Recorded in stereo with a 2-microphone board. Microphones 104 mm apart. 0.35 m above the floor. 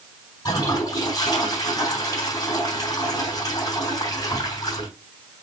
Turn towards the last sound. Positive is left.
turn(degrees=40)  # may be behind; listen again after turning